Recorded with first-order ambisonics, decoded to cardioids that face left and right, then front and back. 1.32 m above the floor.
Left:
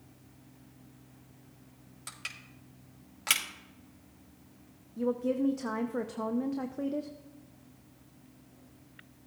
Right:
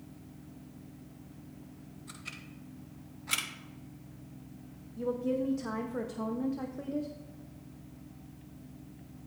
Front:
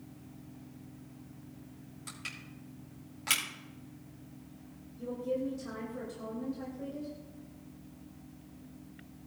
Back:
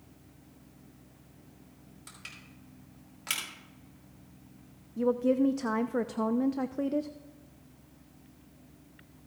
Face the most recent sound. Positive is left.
turn(degrees=170)